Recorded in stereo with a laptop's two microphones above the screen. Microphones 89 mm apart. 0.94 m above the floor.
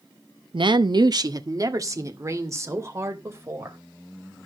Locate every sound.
0.5 s a woman speaking: 65° right (ahead or behind), 0.7 m; by 3.8 s 30° right (ahead or behind), 4 m